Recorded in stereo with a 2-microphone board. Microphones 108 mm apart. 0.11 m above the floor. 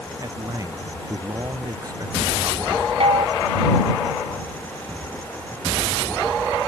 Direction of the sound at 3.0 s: 60° right (ahead or behind).